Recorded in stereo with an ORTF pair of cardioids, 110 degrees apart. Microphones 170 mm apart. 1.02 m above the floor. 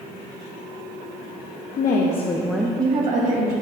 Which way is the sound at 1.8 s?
65° left.